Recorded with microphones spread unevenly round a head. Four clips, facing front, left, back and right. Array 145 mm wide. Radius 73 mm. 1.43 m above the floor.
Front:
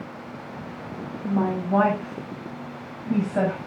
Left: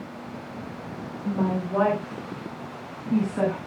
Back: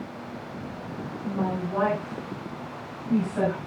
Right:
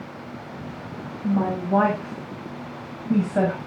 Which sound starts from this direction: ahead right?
A woman speaking, at 1.2 s.